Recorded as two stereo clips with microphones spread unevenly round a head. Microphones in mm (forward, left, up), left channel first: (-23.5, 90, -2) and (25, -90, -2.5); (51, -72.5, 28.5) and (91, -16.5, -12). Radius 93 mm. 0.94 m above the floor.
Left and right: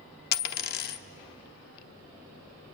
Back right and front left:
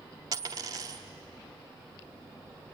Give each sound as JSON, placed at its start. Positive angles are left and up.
{"t": 0.3, "sound": "a dropped coin", "azimuth_deg": 135, "distance_m": 0.8}